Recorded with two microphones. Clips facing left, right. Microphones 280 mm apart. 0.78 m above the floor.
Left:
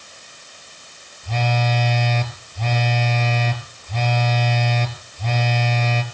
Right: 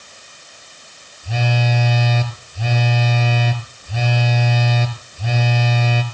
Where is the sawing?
No sawing in this recording.